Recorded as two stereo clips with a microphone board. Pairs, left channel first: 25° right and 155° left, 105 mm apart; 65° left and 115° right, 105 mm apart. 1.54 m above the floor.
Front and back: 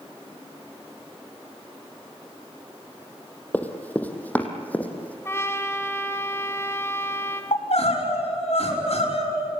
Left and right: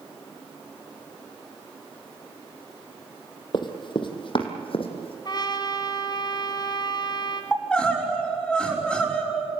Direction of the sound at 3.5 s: 50° left.